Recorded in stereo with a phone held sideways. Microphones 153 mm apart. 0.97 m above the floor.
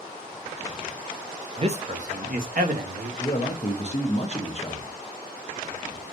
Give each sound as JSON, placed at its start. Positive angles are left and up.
{"t": 1.6, "sound": "a man speaking", "side_deg": -40, "distance_m": 0.7}
{"t": 3.2, "sound": "a man speaking", "side_deg": 45, "distance_m": 1.0}